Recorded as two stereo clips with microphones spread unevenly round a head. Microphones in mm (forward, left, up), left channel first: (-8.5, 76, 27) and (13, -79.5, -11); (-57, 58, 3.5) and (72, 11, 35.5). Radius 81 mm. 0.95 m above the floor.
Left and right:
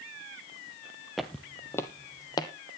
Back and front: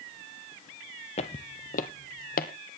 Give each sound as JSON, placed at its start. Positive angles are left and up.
{"t": 1.2, "sound": "footsteps", "azimuth_deg": 160, "distance_m": 1.0}